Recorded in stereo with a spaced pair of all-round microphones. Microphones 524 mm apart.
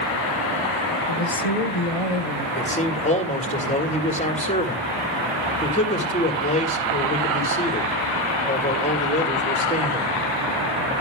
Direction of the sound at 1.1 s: 80° left.